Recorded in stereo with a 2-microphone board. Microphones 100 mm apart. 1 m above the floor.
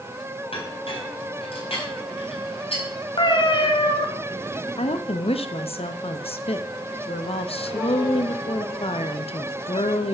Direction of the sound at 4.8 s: 75° left (ahead or behind).